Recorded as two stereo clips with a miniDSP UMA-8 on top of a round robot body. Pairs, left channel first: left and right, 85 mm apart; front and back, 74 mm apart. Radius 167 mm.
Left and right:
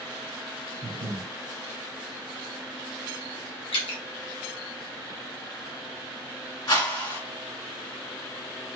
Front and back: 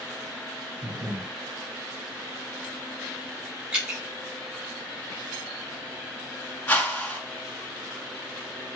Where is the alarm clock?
I don't hear an alarm clock.